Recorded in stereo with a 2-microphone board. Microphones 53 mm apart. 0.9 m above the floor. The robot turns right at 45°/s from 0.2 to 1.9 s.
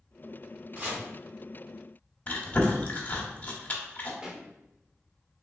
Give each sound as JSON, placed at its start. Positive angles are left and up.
{"t": 0.8, "sound": "chopping", "side_deg": -30, "distance_m": 1.7}
{"t": 2.3, "sound": "chewing", "side_deg": 30, "distance_m": 0.8}
{"t": 4.2, "sound": "a pop", "side_deg": -15, "distance_m": 0.6}